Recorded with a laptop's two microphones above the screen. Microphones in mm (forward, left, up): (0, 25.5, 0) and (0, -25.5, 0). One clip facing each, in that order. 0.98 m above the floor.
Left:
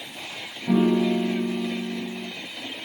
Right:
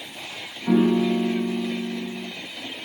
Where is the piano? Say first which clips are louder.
Right 1 dB; 65° right (ahead or behind), 2.5 m.